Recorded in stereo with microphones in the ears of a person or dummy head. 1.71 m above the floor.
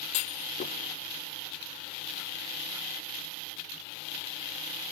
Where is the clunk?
45° left (ahead or behind), 1.0 m.